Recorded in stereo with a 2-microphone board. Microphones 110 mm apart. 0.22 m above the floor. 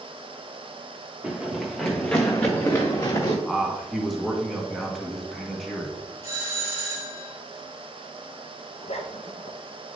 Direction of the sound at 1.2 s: 10° right (ahead or behind).